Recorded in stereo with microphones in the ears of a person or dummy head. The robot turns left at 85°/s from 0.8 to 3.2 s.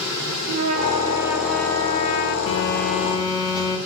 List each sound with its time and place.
0.5 s a trumpet: 125° right, 1.1 m; by 2.4 s 105° left, 1.1 m
2.5 s a phone buzzing: 85° left, 2.5 m; by 3.8 s 20° left, 2.5 m